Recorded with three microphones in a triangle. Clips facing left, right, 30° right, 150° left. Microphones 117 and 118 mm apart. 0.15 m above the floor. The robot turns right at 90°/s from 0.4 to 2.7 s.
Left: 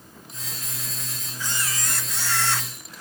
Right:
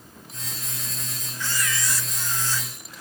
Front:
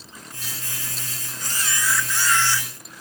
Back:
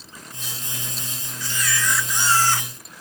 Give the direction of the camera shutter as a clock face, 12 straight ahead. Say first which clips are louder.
Right 2 dB, back 2 dB; 12 o'clock.